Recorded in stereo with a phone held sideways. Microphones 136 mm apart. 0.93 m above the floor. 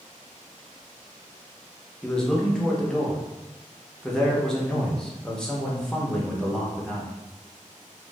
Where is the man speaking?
5° left (ahead or behind), 0.7 m.